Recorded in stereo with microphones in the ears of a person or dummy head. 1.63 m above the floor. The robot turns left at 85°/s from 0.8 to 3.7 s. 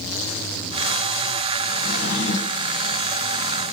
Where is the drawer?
120° left, 1.5 m; by 2.8 s 40° left, 1.5 m.